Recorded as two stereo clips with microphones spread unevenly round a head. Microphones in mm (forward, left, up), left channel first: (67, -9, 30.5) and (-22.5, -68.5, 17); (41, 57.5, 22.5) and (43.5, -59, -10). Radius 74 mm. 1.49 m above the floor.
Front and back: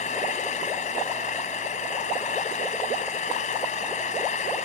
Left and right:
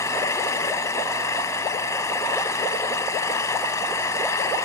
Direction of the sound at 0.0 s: 30° left.